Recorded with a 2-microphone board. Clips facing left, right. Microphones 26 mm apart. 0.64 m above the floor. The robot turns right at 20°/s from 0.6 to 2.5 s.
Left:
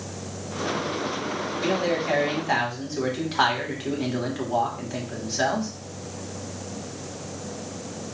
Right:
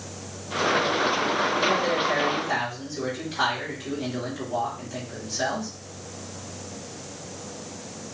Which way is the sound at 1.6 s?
20° left (ahead or behind).